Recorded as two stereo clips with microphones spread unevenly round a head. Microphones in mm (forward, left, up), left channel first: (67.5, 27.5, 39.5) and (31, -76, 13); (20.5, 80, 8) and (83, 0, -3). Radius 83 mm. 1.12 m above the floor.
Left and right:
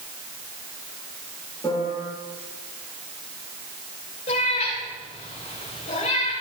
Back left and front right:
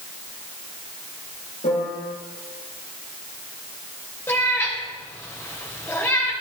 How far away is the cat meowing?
About 3.5 m.